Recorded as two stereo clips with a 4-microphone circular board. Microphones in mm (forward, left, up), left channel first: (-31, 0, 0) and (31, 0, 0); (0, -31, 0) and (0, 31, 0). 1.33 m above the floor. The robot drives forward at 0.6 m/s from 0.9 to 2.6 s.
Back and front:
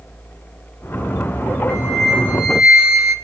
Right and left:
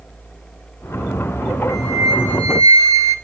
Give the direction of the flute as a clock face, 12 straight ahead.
10 o'clock.